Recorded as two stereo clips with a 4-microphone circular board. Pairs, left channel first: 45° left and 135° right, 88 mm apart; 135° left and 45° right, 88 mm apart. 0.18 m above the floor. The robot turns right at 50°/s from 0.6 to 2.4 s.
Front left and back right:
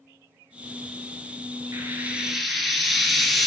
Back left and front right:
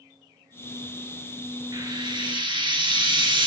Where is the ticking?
I don't hear ticking.